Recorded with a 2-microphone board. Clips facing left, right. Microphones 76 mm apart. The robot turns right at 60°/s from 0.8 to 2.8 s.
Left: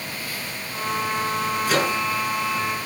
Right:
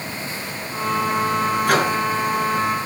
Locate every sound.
1.7 s a microwave: 60° right (ahead or behind), 6 m; by 2.0 s 45° right (ahead or behind), 6 m